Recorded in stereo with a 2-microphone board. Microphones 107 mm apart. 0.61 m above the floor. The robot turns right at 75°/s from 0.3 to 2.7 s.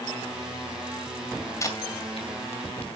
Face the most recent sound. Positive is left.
turn(degrees=70)  # may be behind; listen again after turning